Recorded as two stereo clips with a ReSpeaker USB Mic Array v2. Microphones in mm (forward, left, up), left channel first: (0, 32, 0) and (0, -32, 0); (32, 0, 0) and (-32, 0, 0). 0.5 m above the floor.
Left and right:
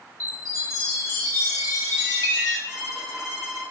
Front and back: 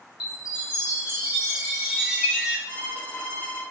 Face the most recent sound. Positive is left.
turn(degrees=-35)